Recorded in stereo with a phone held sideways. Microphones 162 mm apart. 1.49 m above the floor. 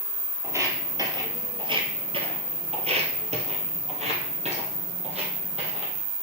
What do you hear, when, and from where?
0.4 s footsteps: 15° right (ahead or behind), 2 m; by 5.9 s 40° right (ahead or behind), 3 m